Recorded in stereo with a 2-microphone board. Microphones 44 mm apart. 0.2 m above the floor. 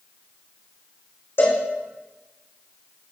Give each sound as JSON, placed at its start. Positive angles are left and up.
{"t": 1.4, "sound": "a cowbell", "side_deg": 65, "distance_m": 3.5}